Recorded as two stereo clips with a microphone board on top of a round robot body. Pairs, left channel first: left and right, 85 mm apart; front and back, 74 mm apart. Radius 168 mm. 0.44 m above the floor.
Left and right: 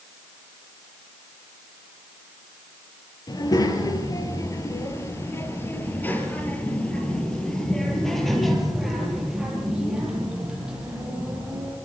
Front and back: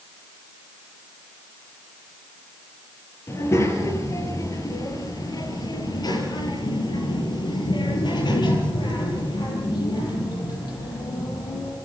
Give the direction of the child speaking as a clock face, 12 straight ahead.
10 o'clock.